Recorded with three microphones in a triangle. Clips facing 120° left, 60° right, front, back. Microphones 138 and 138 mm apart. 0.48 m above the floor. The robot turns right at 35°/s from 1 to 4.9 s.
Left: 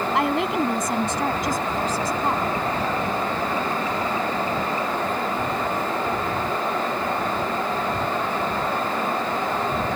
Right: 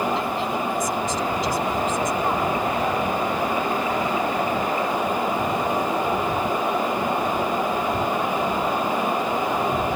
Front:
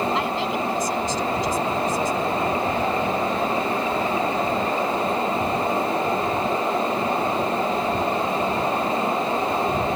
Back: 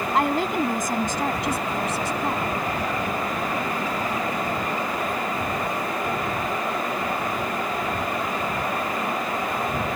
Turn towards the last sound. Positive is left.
turn(degrees=-85)